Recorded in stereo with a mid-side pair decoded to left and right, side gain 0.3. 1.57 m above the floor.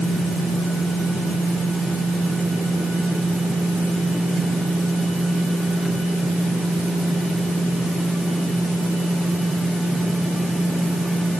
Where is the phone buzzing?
No phone buzzing in this recording.